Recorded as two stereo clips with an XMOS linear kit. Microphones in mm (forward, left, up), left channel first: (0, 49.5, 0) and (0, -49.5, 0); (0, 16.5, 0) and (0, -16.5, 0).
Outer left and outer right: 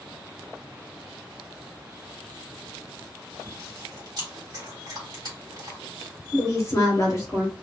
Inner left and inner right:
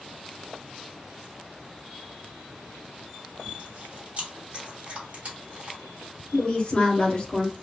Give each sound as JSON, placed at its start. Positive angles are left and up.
{"t": 3.5, "sound": "chewing", "side_deg": -40, "distance_m": 1.5}
{"t": 6.3, "sound": "a woman speaking", "side_deg": 35, "distance_m": 1.3}